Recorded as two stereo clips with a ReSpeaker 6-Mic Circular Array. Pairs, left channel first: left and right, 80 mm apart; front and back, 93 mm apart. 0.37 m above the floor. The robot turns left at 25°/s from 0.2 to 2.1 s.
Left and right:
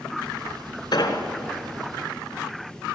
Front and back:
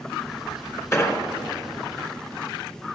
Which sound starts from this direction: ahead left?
An explosion, at 0.9 s.